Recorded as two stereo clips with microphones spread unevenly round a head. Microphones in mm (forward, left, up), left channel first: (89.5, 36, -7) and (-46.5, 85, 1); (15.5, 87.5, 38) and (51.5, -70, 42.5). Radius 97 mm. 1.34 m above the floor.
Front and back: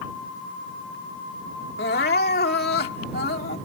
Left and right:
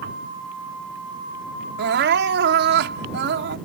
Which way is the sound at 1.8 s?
65° right.